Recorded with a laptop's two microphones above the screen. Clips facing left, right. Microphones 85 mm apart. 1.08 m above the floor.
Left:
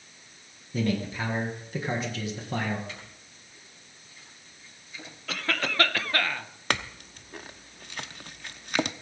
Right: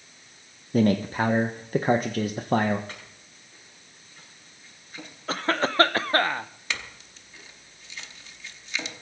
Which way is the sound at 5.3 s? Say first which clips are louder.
Right 5 dB; 35° right (ahead or behind).